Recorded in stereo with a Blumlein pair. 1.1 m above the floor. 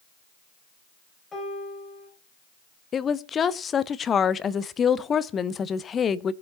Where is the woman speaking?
20° left, 0.6 m.